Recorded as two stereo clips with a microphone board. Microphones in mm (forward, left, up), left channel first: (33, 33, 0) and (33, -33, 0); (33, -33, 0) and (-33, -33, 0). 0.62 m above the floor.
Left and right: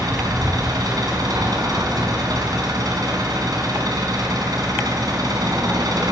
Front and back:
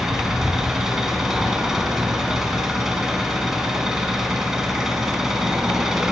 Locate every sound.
0.0 s an engine running: 95° right, 4.5 m